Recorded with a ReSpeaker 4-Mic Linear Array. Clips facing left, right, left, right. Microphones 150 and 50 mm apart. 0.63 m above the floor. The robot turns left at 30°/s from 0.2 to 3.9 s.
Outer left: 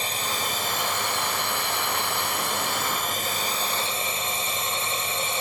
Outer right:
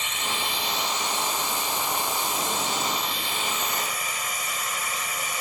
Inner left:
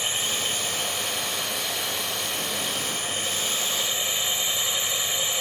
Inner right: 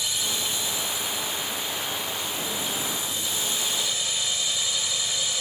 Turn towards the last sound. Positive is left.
turn(degrees=30)